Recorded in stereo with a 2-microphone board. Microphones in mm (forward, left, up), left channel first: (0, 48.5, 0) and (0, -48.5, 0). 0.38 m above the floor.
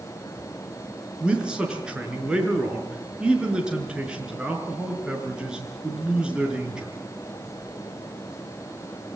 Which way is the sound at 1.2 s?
10° right (ahead or behind).